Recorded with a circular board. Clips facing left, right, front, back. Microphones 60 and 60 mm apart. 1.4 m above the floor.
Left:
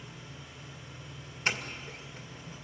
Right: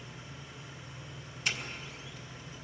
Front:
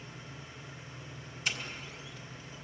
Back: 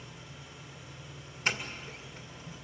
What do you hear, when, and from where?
0.0 s an engine running: 50° right, 9.5 m
1.4 s a doorbell: 140° left, 2.5 m